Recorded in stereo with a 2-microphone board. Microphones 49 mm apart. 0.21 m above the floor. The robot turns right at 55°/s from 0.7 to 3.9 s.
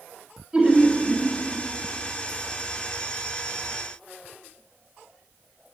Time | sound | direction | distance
0.5 | laughter | 155° right | 1.1 m